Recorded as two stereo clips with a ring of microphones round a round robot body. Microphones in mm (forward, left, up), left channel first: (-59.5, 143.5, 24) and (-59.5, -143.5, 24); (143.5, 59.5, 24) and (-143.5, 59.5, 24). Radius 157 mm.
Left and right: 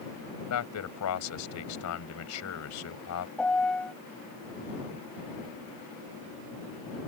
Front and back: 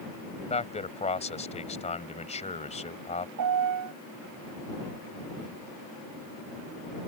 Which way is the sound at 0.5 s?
65° left.